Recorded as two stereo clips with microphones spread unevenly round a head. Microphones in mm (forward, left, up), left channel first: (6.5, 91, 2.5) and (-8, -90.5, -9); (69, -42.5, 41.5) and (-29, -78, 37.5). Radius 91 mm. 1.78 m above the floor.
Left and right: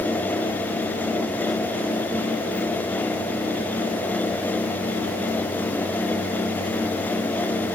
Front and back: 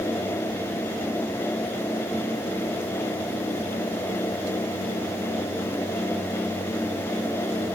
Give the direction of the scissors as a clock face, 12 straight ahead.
I don't hear scissors.